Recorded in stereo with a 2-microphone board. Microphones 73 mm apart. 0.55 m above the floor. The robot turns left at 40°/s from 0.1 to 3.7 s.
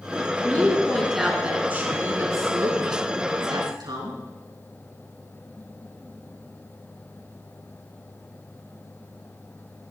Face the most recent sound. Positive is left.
turn(degrees=-100)